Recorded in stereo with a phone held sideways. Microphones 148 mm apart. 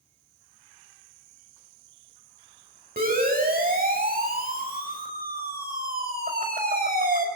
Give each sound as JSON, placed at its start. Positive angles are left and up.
{"t": 3.0, "sound": "a siren", "side_deg": -80, "distance_m": 6.5}